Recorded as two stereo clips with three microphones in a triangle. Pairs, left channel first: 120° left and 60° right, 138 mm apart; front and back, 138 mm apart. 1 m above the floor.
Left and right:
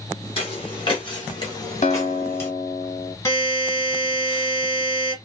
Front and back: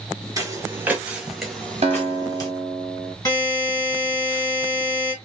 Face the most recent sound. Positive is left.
turn(degrees=60)